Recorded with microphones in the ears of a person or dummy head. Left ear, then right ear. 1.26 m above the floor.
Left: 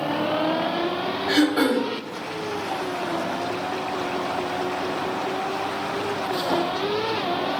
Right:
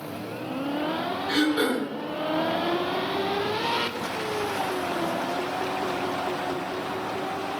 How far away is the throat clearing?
About 1.3 m.